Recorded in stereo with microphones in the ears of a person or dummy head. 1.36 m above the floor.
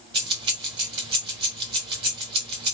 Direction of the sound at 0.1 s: 25° right (ahead or behind).